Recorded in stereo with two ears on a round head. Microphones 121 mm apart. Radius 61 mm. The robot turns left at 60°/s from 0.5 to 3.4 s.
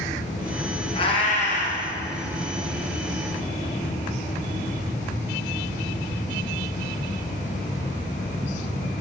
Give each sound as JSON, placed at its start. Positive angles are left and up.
{"t": 0.9, "sound": "a cat meowing", "azimuth_deg": 145, "distance_m": 2.5}